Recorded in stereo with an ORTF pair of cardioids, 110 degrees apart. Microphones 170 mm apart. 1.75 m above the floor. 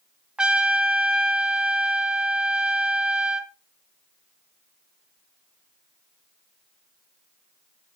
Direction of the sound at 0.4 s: 5° right.